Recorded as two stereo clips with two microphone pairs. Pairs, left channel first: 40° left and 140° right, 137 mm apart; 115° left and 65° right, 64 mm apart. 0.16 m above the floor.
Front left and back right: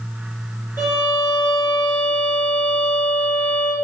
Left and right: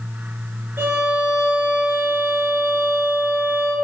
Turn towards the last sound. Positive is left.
turn(degrees=-20)